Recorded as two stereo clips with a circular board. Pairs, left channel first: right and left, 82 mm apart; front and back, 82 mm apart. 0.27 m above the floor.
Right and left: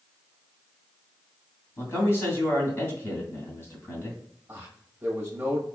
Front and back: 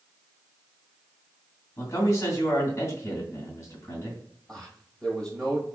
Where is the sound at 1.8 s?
40° right, 2.5 m.